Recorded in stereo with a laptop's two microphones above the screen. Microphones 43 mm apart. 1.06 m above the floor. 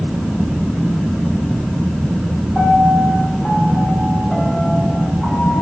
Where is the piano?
15° left (ahead or behind), 8.5 m.